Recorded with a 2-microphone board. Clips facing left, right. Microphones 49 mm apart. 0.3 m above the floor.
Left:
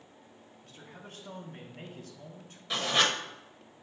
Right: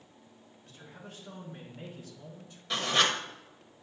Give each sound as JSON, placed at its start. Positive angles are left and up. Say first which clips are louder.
{"t": 0.6, "sound": "a man speaking", "louder": "even", "side_deg": 55, "distance_m": 3.5}
{"t": 2.7, "sound": "writing", "louder": "even", "side_deg": 0, "distance_m": 1.3}